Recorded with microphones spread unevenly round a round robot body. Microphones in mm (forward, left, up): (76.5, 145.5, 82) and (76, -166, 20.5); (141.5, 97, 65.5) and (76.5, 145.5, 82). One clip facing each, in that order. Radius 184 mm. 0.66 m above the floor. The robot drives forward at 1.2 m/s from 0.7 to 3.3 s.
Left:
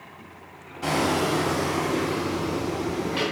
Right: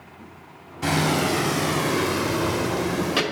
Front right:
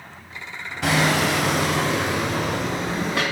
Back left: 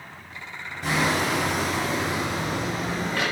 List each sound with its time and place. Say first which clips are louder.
0.8 s hammering: right 1 dB, front right 4 dB; 35° right, 2.5 m; by 3.2 s 120° right, 1.7 m